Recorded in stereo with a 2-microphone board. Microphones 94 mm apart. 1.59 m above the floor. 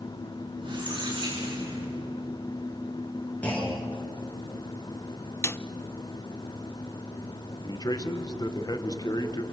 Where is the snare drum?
25° left (ahead or behind), 0.6 m.